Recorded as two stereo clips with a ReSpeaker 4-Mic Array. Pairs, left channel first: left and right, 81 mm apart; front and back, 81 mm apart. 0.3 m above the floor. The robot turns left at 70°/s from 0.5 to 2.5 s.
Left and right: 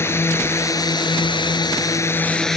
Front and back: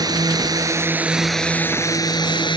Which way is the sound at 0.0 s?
145° left.